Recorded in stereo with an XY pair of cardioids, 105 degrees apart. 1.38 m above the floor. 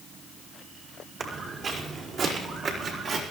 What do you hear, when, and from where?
1.2 s footsteps: 55° right, 4.5 m; by 3.2 s 70° right, 5 m